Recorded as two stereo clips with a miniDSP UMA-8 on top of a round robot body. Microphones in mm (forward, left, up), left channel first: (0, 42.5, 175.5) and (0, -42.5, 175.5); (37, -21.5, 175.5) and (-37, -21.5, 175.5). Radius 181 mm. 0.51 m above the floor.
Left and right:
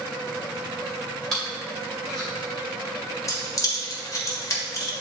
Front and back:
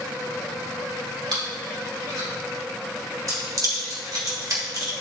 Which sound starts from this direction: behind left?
Keys jangling, at 3.3 s.